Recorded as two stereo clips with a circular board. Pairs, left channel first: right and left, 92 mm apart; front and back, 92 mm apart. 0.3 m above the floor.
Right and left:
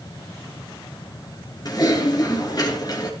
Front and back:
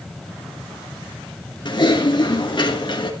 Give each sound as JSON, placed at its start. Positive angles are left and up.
{"t": 1.6, "sound": "typing on a keyboard", "azimuth_deg": -40, "distance_m": 3.5}